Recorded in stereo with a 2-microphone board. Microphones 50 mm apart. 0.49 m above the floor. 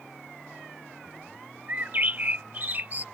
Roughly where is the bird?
Right.